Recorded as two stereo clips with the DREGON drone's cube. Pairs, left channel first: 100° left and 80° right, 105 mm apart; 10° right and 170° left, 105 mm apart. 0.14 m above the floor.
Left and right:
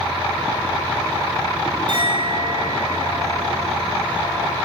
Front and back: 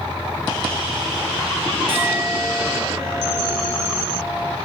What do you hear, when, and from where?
1.9 s a clink: 120° right, 7 m